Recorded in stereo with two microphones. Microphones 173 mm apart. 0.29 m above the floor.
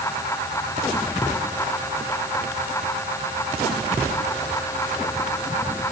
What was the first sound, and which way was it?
Only background noise.